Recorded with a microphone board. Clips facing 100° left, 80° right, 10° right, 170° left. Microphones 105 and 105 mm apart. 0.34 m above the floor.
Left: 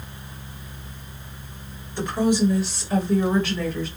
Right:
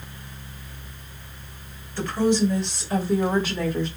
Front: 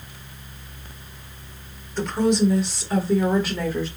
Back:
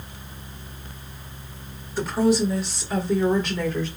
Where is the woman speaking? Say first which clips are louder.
Even, even; 100° left, 1.4 m; by 3.9 s 80° right, 1.5 m.